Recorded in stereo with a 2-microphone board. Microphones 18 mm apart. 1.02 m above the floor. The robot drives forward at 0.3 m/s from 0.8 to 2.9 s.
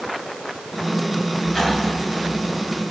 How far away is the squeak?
About 3.5 m.